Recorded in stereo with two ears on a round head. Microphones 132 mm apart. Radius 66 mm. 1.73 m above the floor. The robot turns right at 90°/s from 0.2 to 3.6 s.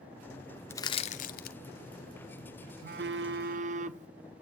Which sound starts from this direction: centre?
Crushing, at 0.7 s.